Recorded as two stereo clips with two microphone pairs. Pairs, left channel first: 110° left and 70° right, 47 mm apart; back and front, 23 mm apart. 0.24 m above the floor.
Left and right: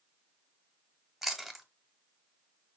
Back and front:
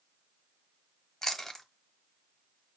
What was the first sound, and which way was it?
Chewing, 145° right.